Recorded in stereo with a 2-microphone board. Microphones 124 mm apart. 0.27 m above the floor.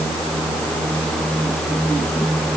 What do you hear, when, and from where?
Only background noise.